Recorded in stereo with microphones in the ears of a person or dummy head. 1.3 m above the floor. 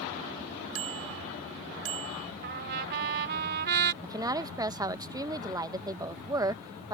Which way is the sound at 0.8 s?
70° right (ahead or behind).